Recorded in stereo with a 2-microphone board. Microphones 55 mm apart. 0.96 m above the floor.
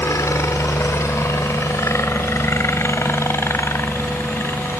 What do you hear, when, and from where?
0.0 s a helicopter: 60° left (ahead or behind); by 4.8 s 45° left (ahead or behind)